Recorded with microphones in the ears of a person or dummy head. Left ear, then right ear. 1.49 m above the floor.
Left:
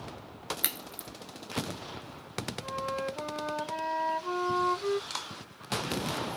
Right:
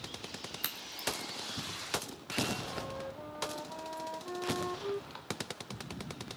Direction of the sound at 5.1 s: 80° left.